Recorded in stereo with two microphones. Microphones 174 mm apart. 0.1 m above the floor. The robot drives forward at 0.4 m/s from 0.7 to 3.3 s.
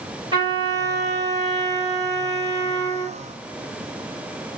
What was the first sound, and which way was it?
A trumpet, 25° right (ahead or behind).